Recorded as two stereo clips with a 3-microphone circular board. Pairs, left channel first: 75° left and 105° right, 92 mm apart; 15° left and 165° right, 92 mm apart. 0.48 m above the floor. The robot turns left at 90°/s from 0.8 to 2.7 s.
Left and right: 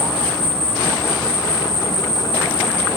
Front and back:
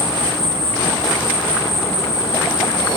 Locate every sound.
0.0 s an insect: 175° right, 3.5 m; by 3.0 s 15° left, 3.5 m